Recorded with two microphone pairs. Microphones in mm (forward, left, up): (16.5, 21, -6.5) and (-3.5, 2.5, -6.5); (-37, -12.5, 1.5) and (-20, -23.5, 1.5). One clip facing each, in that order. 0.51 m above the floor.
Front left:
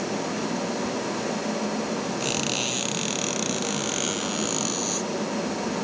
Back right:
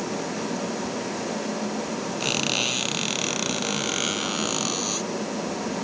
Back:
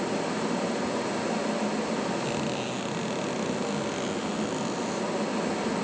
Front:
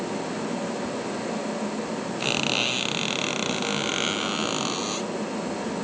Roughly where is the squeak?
Ahead right.